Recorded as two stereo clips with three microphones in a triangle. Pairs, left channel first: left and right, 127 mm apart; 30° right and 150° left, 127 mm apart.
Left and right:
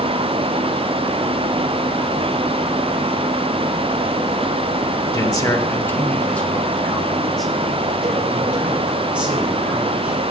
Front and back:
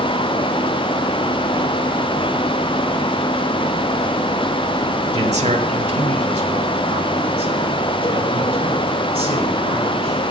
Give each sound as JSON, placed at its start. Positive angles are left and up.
{"t": 5.1, "sound": "a man speaking", "azimuth_deg": 140, "distance_m": 1.5}